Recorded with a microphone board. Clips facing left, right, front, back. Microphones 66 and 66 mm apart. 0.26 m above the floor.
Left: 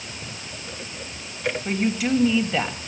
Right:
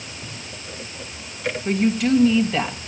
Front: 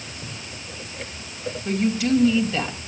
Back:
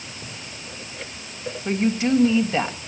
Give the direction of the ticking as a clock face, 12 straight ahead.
No ticking in this recording.